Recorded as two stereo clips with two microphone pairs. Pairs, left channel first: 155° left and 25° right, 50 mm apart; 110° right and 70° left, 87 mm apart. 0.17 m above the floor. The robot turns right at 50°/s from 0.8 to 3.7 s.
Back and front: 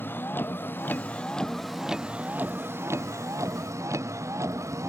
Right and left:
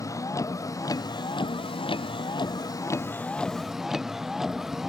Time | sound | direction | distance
0.0 | a vehicle | 160° right | ?